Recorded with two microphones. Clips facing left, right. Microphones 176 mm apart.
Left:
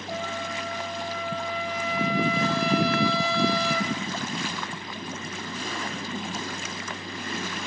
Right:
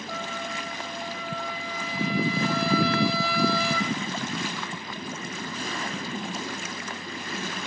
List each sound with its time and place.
0.1 s a trumpet: 20° left (ahead or behind), 5 m